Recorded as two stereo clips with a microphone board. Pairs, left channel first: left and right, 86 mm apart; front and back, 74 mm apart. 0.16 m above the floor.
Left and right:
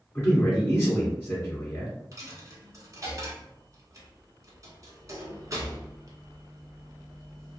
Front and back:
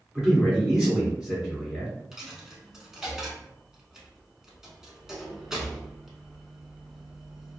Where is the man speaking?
120° left, 1.4 m.